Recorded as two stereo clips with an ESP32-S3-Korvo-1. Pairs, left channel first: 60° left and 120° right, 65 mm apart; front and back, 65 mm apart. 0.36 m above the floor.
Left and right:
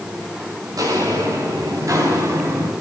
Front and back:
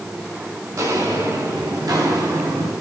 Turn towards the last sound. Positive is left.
turn(degrees=-165)